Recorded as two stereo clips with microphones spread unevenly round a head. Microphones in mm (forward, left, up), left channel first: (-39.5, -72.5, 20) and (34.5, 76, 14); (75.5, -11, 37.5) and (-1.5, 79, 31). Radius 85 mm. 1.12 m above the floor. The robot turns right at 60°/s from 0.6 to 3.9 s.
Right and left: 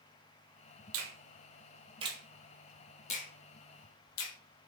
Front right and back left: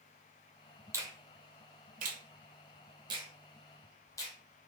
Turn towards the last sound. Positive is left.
turn(degrees=-120)